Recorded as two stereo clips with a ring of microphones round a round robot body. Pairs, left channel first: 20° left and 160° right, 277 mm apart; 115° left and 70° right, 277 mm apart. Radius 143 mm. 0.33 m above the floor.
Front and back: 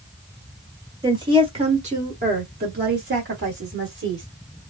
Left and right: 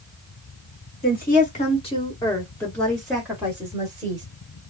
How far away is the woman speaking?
About 1.7 m.